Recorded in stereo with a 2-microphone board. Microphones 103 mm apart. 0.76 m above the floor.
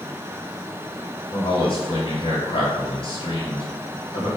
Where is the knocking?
No knocking in this recording.